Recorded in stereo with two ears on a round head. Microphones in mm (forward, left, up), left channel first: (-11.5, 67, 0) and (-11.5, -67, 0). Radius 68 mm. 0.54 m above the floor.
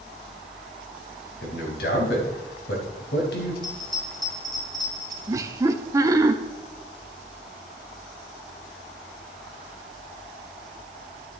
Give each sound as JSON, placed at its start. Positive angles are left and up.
{"t": 1.4, "sound": "a man speaking", "side_deg": 70, "distance_m": 3.5}
{"t": 3.6, "sound": "a bell", "side_deg": 5, "distance_m": 3.5}
{"t": 5.3, "sound": "laughter", "side_deg": -20, "distance_m": 0.9}